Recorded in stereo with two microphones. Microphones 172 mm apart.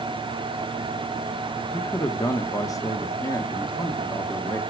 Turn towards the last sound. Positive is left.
turn(degrees=20)  # may be behind; listen again after turning